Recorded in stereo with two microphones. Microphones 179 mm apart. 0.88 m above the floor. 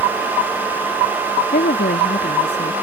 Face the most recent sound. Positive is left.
turn(degrees=75)  # may be behind; listen again after turning